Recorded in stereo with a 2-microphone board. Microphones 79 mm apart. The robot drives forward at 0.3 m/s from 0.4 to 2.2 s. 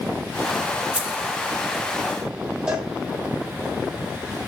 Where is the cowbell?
15° right (ahead or behind), 3 m.